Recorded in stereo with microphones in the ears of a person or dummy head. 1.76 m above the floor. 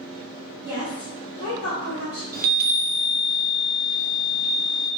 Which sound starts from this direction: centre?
A woman speaking, at 0.7 s.